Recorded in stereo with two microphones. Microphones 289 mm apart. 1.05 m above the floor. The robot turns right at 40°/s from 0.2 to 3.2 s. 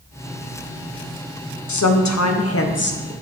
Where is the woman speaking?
95° left, 0.6 m; by 3.1 s 150° left, 0.6 m.